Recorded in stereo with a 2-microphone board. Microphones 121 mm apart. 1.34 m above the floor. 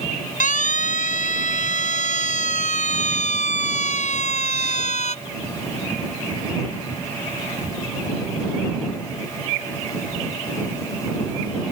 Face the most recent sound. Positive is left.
turn(degrees=65)  # may be behind; listen again after turning